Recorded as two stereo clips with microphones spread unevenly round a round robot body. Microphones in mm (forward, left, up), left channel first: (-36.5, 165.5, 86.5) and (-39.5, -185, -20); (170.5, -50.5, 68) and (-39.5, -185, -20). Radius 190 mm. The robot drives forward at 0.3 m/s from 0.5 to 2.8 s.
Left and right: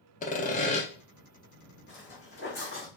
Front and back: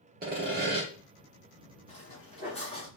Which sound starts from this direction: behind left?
Footsteps, at 1.9 s.